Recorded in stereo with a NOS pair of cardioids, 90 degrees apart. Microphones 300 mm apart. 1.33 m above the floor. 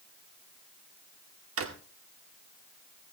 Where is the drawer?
55° right, 2.0 m.